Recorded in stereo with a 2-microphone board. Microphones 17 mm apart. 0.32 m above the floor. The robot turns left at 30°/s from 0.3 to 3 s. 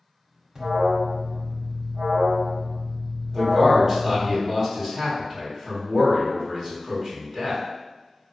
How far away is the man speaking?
About 1.8 m.